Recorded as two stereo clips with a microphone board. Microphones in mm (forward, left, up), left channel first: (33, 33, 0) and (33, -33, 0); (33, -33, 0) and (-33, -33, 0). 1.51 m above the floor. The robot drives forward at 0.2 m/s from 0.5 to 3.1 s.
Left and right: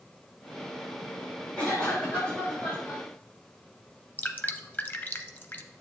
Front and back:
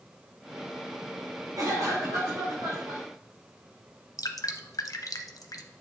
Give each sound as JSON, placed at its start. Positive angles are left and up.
{"t": 1.6, "sound": "a cough", "azimuth_deg": 160, "distance_m": 4.0}
{"t": 4.2, "sound": "dripping", "azimuth_deg": 25, "distance_m": 0.6}